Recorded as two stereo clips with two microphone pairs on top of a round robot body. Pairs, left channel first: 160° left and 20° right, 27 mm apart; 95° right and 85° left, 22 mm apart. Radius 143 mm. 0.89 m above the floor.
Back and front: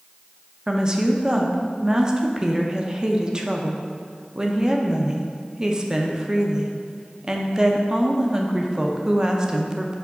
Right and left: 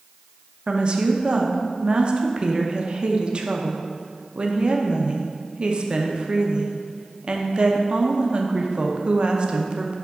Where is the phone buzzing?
No phone buzzing in this recording.